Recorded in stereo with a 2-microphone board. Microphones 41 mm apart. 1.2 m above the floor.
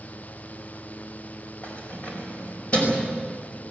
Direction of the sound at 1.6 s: 40° left (ahead or behind).